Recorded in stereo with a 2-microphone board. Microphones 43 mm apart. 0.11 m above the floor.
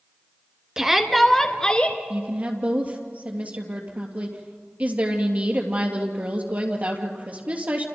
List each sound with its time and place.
0.8 s a shout: 15° right (ahead or behind), 1.2 m; by 2.0 s 25° left (ahead or behind), 1.3 m
2.1 s a woman speaking: 35° right (ahead or behind), 3 m